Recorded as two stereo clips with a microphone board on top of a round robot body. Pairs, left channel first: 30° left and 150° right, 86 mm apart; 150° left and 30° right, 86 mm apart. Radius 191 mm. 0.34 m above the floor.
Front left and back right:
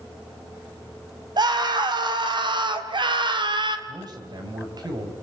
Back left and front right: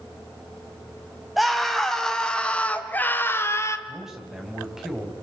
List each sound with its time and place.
1.4 s a scream: 120° right, 4 m; by 3.8 s 160° right, 3 m
3.9 s a man speaking: 115° right, 4.5 m